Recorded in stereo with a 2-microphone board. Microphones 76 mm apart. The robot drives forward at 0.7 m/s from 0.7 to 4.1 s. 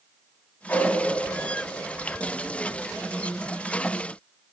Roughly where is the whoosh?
Left.